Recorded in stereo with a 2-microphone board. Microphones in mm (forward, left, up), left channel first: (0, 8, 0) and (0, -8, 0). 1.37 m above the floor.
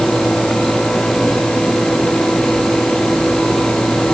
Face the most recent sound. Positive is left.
No sound to turn to.